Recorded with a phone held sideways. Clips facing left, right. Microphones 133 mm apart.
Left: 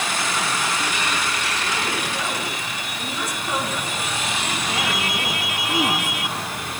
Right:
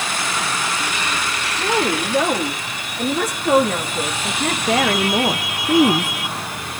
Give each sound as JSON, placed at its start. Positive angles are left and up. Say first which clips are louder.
{"t": 1.6, "sound": "a woman speaking", "louder": "right 6 dB", "side_deg": -80, "distance_m": 3.0}